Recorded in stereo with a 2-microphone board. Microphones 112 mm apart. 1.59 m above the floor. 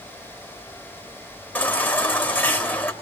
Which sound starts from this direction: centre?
A baby crying, at 1.6 s.